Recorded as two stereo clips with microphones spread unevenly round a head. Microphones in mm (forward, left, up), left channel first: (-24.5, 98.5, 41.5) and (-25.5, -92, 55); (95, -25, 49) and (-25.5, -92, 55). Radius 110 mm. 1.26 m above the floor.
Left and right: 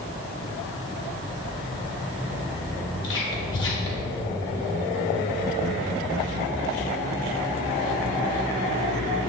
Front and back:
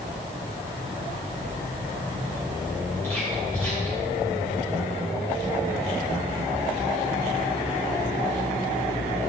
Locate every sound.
3.0 s whispering: 105° left, 2.5 m